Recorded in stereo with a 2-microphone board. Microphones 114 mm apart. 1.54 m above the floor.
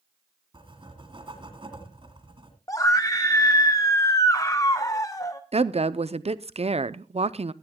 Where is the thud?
I don't hear a thud.